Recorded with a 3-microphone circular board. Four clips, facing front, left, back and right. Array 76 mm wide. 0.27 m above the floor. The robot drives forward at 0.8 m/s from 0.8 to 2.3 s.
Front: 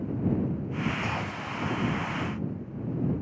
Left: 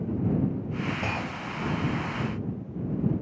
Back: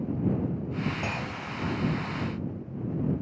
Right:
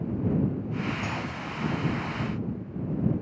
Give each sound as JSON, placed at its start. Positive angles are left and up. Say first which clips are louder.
{"t": 1.0, "sound": "a clunk", "louder": "left 1 dB, front 1 dB", "azimuth_deg": 110, "distance_m": 1.0}